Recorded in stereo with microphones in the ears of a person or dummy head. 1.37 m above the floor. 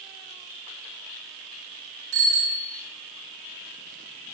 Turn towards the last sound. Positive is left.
turn(degrees=-70)  # may be behind; listen again after turning